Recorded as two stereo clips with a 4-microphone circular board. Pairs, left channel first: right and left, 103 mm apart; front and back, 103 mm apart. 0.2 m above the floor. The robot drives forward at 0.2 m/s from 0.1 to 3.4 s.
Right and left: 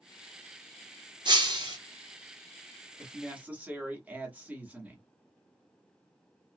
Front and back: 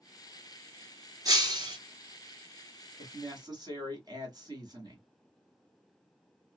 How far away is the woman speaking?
About 1.4 m.